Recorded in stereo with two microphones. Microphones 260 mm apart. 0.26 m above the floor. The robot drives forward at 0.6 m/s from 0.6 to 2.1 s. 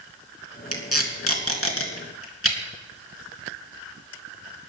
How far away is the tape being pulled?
About 3 m.